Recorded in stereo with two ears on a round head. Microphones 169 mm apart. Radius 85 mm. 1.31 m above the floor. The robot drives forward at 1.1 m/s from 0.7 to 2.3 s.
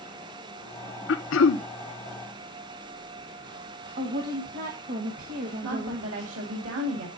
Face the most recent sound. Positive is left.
turn(degrees=-80)